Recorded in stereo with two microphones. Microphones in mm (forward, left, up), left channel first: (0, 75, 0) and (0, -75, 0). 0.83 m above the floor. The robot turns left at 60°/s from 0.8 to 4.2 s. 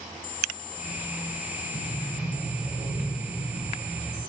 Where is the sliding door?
20° right, 3 m; by 4.2 s 165° right, 3 m.